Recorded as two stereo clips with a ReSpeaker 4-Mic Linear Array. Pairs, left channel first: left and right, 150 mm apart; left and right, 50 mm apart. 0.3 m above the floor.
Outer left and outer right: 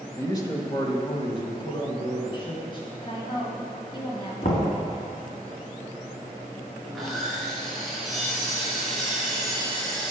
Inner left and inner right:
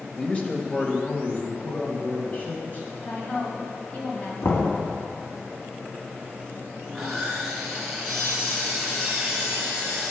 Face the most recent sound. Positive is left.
turn(degrees=0)  # may be behind; listen again after turning